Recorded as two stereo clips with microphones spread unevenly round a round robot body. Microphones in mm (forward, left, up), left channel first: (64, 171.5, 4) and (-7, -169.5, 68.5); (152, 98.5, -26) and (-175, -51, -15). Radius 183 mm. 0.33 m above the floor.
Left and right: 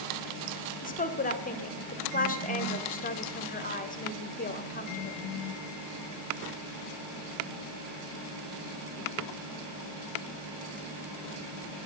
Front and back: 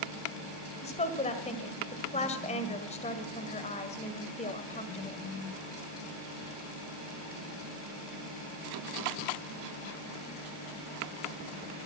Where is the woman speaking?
75° left, 1.6 m.